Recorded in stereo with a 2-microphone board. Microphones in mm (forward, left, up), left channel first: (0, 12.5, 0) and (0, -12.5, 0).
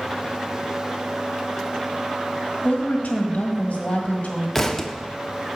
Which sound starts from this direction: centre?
A thud, at 4.5 s.